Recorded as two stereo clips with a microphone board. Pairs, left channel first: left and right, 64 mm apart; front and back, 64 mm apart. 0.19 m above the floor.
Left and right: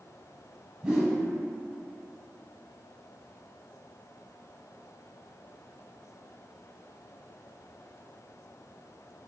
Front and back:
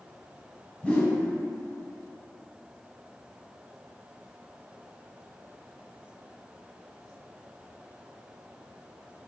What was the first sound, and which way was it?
A whoosh, 35° right.